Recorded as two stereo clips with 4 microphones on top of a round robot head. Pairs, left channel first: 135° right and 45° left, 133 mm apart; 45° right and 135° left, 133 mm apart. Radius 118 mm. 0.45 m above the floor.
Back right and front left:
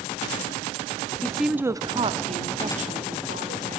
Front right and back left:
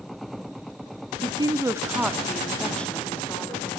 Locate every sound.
1.2 s a woman speaking: 155° left, 0.9 m; by 3.8 s 30° left, 2 m